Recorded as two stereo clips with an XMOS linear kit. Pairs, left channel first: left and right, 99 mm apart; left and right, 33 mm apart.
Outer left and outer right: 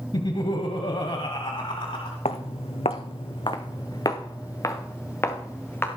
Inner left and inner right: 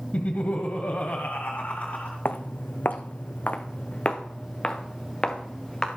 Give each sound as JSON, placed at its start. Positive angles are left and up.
{"t": 0.1, "sound": "laughter", "side_deg": 50, "distance_m": 1.3}
{"t": 2.2, "sound": "footsteps", "side_deg": 75, "distance_m": 1.2}